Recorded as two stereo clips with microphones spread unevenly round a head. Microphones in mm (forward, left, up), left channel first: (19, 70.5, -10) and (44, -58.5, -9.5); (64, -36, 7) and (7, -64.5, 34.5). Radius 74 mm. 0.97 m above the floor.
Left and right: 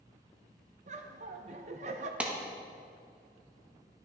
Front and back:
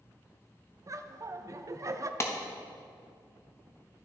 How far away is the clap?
About 1.1 m.